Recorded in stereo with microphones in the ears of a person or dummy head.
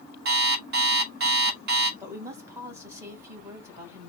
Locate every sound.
0.2 s an alarm clock: 45° right (ahead or behind), 1.3 m
2.0 s a woman speaking: 15° right (ahead or behind), 2.0 m